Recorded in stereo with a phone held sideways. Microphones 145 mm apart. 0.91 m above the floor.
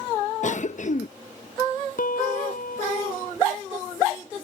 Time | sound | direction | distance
0.4 | a cough | 55° left (ahead or behind) | ?
2.0 | a piano | 75° left (ahead or behind) | ?